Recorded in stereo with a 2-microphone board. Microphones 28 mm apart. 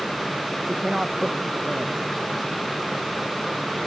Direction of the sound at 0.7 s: 20° right (ahead or behind).